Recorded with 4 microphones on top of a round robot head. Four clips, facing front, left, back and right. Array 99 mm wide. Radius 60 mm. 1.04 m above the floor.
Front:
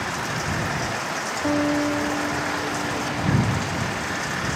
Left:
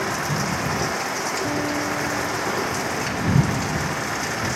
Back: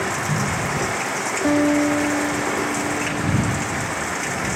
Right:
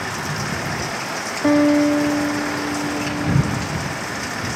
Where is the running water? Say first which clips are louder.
Left 1 dB, back 4 dB; 145° left.